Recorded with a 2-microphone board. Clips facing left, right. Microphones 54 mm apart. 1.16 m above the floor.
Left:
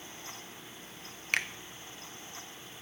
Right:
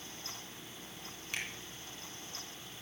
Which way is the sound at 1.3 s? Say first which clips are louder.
Left 9 dB; 65° left (ahead or behind).